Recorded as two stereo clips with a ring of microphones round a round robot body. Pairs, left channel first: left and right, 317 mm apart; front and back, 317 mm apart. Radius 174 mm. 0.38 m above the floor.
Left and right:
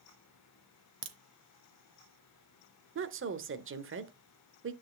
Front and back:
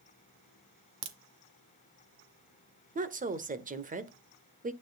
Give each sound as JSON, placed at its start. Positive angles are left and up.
{"t": 1.0, "sound": "a crack", "azimuth_deg": -145, "distance_m": 1.4}
{"t": 3.0, "sound": "a woman speaking", "azimuth_deg": -125, "distance_m": 1.1}